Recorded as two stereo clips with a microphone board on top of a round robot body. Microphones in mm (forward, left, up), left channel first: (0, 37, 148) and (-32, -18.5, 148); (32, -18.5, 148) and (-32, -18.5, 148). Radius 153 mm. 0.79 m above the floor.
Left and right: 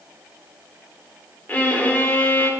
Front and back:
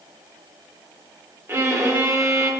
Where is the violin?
125° left, 1.6 m.